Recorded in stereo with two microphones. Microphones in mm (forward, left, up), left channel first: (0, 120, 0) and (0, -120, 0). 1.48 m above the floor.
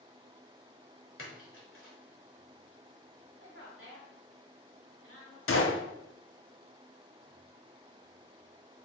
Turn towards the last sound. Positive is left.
turn(degrees=60)  # may be behind; listen again after turning